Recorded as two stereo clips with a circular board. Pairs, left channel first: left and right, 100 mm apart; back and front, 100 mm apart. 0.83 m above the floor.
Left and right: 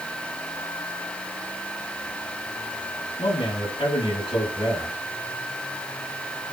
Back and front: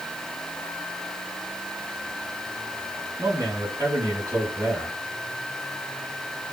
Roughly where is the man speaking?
Ahead left.